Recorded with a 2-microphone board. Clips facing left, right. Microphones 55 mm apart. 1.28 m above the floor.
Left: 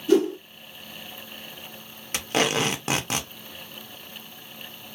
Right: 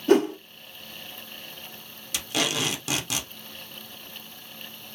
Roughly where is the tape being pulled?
Left.